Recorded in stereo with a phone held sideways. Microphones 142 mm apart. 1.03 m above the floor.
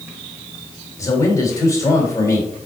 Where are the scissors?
I don't hear scissors.